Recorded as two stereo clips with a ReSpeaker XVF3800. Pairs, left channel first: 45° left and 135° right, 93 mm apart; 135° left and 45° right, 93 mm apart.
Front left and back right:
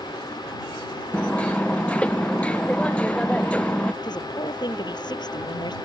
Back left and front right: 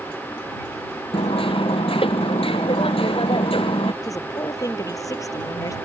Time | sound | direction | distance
1.1 | hammering | 120° left | ?
4.0 | a woman speaking | 85° left | ?